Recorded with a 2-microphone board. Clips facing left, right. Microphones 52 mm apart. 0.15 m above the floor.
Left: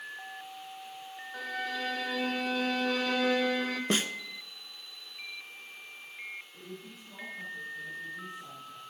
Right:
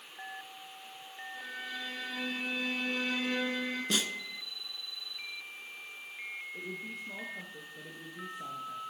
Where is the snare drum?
40° left (ahead or behind), 0.6 m.